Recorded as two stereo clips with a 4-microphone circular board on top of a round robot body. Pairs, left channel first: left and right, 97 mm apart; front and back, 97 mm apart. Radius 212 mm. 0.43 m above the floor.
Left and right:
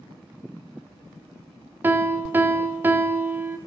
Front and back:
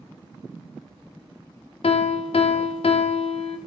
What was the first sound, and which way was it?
A piano, 20° right.